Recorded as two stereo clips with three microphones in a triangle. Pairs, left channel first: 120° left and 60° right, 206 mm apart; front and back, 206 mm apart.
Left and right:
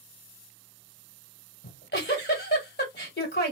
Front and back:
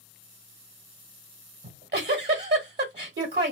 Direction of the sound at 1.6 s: 150° left.